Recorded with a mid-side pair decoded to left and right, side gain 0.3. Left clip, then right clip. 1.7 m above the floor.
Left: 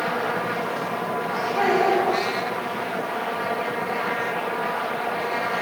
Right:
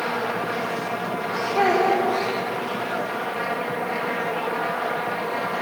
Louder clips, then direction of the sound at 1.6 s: Right 1 dB; 45° right.